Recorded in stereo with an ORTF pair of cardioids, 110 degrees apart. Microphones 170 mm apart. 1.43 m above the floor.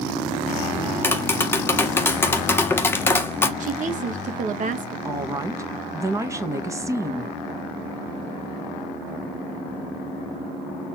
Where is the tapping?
15° left, 1.6 m.